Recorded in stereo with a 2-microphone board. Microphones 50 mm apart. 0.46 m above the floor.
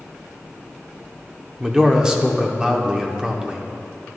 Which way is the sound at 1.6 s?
15° right (ahead or behind).